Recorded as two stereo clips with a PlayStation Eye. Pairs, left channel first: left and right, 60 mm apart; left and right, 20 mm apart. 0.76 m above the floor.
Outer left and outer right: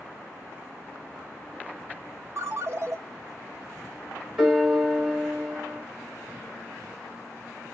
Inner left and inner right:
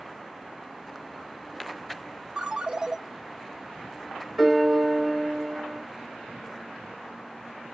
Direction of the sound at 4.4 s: 5° right (ahead or behind).